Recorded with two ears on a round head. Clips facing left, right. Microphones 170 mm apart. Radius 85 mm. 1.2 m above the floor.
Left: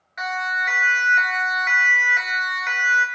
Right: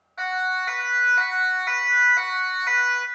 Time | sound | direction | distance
0.2 | a siren | 20° left (ahead or behind) | 4 m